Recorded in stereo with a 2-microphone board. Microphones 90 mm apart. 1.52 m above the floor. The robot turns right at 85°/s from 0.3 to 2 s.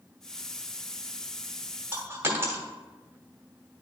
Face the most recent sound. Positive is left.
turn(degrees=-25)  # may be behind; listen again after turning